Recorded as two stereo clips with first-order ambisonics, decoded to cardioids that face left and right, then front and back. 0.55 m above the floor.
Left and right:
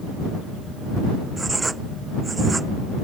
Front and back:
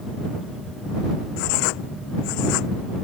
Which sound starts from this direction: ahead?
Writing, at 1.4 s.